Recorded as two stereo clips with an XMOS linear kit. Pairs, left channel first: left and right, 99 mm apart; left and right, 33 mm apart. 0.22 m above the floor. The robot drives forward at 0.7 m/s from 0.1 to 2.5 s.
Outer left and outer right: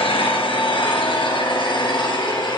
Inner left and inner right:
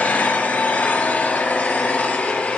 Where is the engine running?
65° left (ahead or behind), 3.5 m; by 2.6 s 50° left (ahead or behind), 4.5 m.